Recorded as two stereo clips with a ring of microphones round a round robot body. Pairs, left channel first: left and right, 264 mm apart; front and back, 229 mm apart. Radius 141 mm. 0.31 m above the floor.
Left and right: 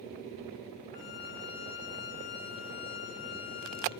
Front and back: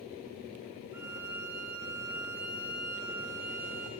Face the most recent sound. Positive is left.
turn(degrees=100)